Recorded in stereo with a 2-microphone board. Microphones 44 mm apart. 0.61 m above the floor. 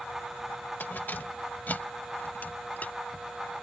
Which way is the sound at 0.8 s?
50° left (ahead or behind).